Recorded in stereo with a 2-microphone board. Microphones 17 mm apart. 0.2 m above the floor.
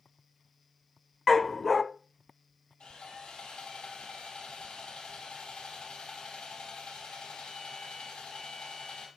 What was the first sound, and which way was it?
A dog barking, 10° left (ahead or behind).